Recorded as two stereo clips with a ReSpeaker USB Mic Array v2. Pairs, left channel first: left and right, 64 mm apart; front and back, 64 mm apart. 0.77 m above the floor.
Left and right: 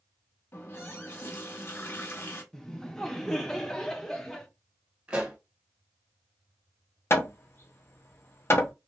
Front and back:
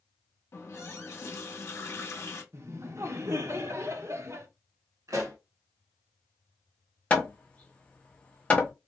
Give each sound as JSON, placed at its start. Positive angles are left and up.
{"t": 0.5, "sound": "a running tap", "azimuth_deg": 45, "distance_m": 0.7}
{"t": 2.5, "sound": "laughter", "azimuth_deg": 170, "distance_m": 0.6}
{"t": 5.1, "sound": "a pop", "azimuth_deg": -165, "distance_m": 0.9}
{"t": 7.1, "sound": "hammering", "azimuth_deg": 65, "distance_m": 0.6}